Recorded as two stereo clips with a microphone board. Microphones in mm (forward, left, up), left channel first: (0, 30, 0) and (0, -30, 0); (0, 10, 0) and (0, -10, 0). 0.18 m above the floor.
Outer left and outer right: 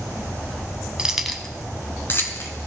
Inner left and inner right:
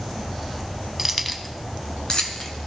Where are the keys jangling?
15° right (ahead or behind), 0.9 m; by 2.7 s 50° left (ahead or behind), 1.7 m.